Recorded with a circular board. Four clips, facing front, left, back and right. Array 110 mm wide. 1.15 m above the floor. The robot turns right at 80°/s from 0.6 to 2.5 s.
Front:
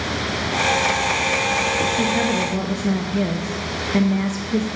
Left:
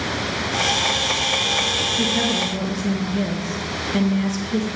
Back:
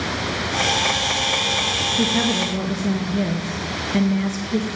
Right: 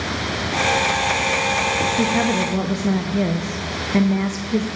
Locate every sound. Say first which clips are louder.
2.0 s a woman speaking: right 1 dB, front 1 dB; 110° right, 0.6 m; by 4.7 s 70° right, 0.6 m